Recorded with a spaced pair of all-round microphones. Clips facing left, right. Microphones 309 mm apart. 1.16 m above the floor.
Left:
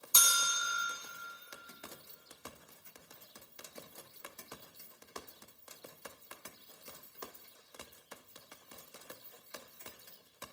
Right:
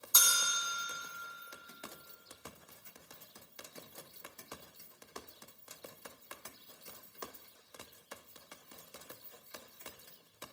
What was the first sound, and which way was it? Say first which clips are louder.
A bell: left 1 dB; 35° left (ahead or behind).